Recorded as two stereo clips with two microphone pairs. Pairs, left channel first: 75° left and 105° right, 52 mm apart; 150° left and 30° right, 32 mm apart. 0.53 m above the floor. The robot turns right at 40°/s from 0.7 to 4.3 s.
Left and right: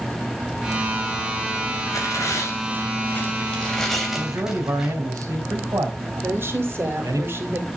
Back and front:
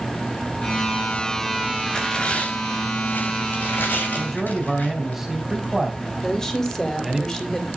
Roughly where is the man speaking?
Behind right.